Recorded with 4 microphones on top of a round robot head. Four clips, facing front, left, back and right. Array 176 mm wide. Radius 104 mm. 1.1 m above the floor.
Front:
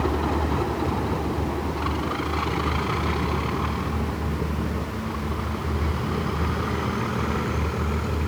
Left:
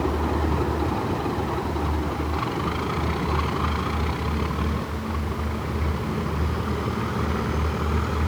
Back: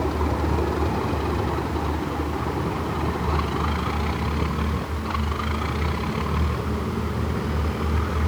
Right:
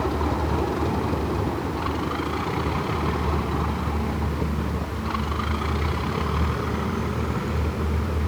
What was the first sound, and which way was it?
Only background noise.